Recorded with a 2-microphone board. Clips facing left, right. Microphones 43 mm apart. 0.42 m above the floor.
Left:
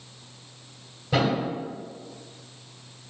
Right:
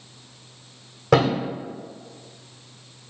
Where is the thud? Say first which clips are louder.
Right 5 dB; 75° right (ahead or behind), 1.3 m.